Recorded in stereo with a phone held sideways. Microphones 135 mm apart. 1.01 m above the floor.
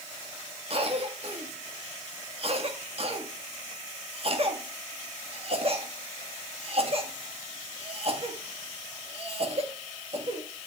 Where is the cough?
45° right (ahead or behind), 2 m.